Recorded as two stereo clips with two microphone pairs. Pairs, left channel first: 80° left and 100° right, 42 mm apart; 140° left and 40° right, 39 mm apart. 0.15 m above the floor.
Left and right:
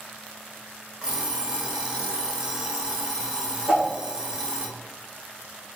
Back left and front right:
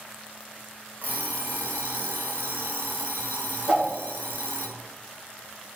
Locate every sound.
1.0 s an alarm clock: 35° right, 0.7 m
3.7 s a whoosh: 145° right, 1.2 m